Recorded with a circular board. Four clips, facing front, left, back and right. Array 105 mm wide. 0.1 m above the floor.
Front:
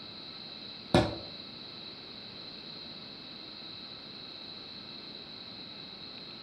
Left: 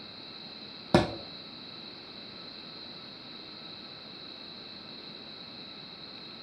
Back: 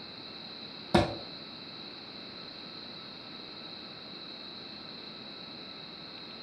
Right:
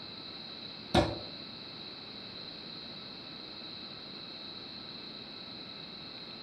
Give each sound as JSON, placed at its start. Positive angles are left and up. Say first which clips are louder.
{"t": 0.9, "sound": "a thud", "louder": "left 3 dB, even", "azimuth_deg": 80, "distance_m": 2.0}